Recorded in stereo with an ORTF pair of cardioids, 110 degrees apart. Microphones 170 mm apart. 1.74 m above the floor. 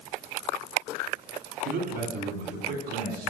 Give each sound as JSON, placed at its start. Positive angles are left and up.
{"t": 1.6, "sound": "a man speaking", "azimuth_deg": -70, "distance_m": 4.0}